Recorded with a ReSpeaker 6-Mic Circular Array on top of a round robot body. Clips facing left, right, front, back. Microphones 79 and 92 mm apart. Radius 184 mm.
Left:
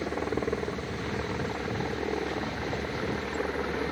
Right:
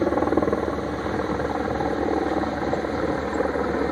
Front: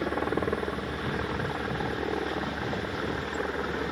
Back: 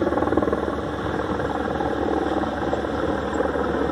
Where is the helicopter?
130° right; by 3.9 s 140° right.